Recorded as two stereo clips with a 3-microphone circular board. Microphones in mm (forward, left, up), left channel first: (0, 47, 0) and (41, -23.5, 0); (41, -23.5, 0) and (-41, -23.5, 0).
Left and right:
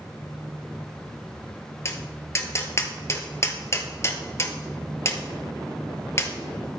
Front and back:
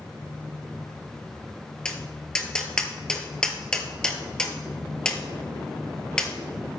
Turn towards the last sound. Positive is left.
turn(degrees=75)